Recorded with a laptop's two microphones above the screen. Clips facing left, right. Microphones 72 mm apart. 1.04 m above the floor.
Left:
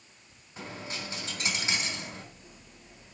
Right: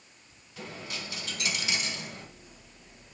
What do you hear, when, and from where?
0.6 s a dropped coin: 30° left (ahead or behind), 3.5 m